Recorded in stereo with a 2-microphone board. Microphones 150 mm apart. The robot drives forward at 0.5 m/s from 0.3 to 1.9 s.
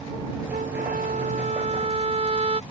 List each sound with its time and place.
0.5 s a trumpet: 85° right; by 2.6 s 45° right (ahead or behind)